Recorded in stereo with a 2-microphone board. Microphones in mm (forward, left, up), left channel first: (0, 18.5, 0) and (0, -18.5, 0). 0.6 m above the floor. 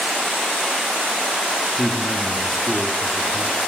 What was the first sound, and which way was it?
A man speaking, 10° left (ahead or behind).